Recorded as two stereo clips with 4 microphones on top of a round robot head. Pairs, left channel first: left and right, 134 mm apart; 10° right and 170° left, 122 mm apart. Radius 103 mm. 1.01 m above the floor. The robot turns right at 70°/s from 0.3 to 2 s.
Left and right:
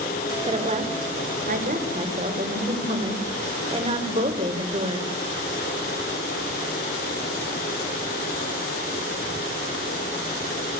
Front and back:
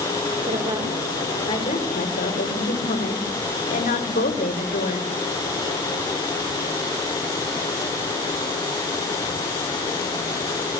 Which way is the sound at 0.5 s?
140° right.